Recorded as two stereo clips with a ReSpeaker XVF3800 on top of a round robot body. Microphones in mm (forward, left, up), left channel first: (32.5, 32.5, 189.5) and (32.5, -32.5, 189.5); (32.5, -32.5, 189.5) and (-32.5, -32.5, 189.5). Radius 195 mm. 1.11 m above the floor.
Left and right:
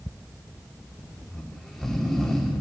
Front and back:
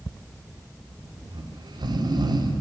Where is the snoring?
Straight behind, 2.5 m.